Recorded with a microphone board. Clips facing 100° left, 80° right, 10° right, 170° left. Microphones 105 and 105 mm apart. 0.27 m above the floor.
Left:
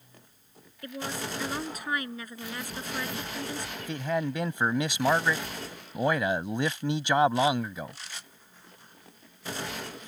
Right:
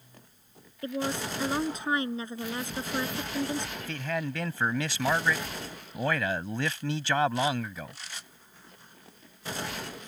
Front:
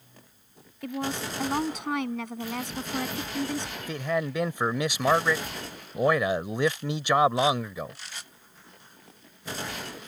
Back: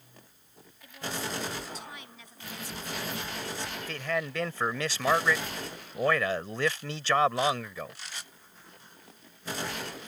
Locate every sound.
0.8 s a woman speaking: 15° right
3.8 s a man speaking: 50° left